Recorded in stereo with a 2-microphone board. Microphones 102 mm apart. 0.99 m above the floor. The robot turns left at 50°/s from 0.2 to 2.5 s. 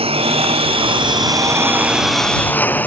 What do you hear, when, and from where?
0.0 s a lawn mower: 85° right; by 2.9 s 160° left